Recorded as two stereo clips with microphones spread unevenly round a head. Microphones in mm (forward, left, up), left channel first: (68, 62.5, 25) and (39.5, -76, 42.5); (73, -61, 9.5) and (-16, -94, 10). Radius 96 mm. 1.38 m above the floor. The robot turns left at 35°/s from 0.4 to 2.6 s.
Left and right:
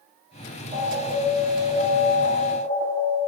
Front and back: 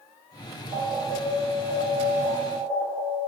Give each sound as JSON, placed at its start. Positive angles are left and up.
{"t": 0.7, "sound": "an alarm", "azimuth_deg": -170, "distance_m": 5.5}